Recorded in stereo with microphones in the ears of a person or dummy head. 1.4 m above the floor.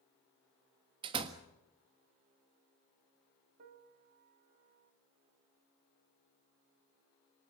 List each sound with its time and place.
1.0 s a door slam: 25° right (ahead or behind), 1.5 m
3.6 s a piano: 50° right (ahead or behind), 1.3 m